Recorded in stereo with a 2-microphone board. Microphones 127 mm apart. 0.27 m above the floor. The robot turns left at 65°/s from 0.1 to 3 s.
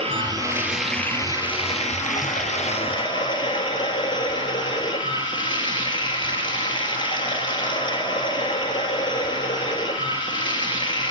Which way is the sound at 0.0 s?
130° right.